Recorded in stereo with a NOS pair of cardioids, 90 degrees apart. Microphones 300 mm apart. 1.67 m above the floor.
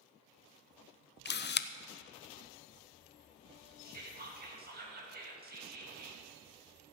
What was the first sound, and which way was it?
A camera shutter, 35° left.